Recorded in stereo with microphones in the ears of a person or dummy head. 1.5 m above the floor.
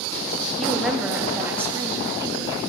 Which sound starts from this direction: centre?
A woman speaking, at 0.6 s.